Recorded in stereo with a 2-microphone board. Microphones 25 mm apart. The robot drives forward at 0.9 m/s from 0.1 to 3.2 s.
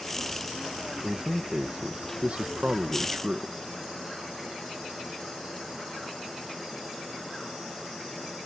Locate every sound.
1.0 s a man speaking: 50° right (ahead or behind); by 3.6 s 55° right (ahead or behind)